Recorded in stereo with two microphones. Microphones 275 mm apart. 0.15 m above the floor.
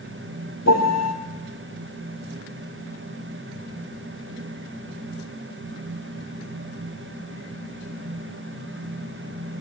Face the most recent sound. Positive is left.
turn(degrees=70)  # may be behind; listen again after turning